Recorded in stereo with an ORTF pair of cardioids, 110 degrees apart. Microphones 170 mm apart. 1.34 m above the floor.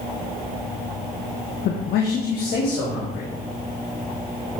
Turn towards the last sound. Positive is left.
turn(degrees=75)